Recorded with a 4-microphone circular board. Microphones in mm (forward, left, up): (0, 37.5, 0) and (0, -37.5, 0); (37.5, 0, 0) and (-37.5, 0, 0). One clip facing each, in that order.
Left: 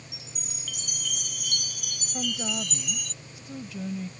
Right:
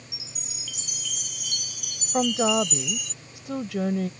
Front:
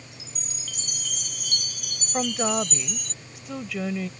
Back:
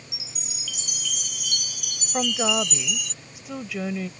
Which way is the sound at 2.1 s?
95° right.